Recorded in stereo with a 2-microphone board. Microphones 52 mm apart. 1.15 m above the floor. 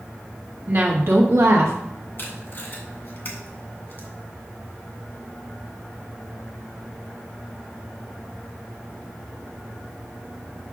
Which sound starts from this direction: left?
Tape being pulled, at 2.2 s.